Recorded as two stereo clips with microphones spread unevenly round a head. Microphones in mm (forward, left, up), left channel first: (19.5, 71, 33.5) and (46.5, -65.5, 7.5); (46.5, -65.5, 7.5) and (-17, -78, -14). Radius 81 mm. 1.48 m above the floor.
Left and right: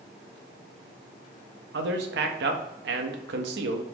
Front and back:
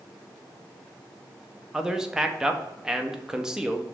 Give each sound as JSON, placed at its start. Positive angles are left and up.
{"t": 1.7, "sound": "a man speaking", "azimuth_deg": -85, "distance_m": 0.7}